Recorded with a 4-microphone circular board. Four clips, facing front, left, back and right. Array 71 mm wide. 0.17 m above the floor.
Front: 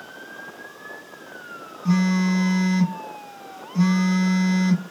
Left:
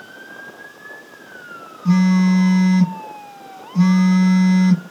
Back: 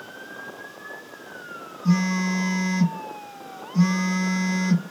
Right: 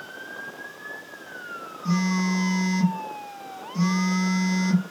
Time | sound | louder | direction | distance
1.9 | a phone buzzing | left 9 dB, front 2 dB | 55° left | 1.1 m